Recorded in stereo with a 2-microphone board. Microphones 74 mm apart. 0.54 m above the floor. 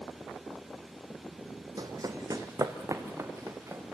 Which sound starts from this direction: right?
Running footsteps, at 1.8 s.